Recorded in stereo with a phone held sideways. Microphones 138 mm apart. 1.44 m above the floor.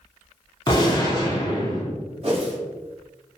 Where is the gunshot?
30° left (ahead or behind), 0.6 m.